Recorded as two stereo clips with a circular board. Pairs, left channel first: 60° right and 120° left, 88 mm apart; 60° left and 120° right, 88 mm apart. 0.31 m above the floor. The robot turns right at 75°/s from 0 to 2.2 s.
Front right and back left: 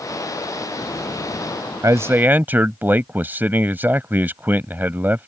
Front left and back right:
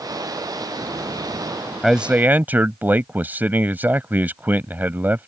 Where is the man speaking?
150° left; by 5.3 s straight behind.